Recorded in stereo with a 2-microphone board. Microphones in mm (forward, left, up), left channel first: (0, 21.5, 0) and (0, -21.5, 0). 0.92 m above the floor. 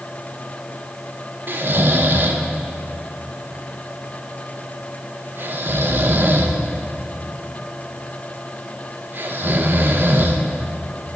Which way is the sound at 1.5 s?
50° right (ahead or behind).